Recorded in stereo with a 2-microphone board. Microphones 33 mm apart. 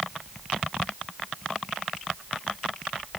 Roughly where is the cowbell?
No cowbell in this recording.